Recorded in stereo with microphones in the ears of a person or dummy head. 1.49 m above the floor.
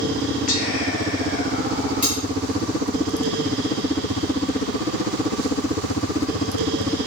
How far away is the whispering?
About 0.7 m.